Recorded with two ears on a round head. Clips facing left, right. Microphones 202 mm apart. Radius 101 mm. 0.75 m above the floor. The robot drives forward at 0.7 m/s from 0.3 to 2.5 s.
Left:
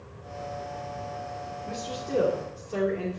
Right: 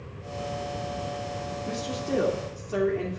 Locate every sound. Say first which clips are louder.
1.7 s a woman speaking: right 3 dB; 65° right (ahead or behind), 2.5 m